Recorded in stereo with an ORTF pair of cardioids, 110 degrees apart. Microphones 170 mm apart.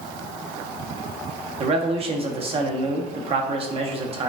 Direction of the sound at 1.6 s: 35° right.